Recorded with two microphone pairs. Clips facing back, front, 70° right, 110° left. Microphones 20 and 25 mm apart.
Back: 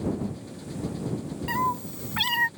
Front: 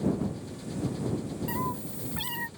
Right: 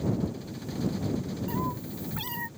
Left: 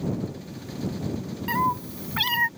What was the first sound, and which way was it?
A cat meowing, 120° left.